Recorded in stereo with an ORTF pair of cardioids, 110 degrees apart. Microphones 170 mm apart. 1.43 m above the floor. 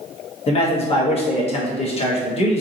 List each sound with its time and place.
0.5 s a man speaking: 35° left, 1.3 m